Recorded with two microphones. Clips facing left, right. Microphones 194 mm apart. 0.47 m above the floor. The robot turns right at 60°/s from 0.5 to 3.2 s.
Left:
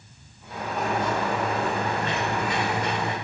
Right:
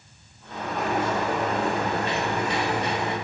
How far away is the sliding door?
About 1.6 m.